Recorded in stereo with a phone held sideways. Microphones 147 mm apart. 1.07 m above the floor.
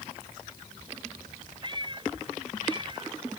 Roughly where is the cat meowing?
Right.